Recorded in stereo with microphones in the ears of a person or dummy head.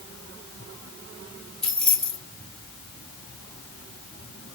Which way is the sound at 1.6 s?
10° left (ahead or behind).